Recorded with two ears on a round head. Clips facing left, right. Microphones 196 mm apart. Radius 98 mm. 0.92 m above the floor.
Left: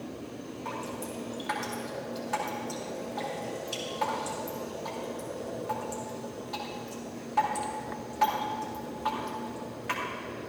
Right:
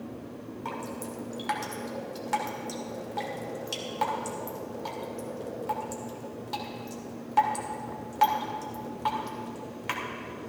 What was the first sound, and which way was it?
Dripping, 65° right (ahead or behind).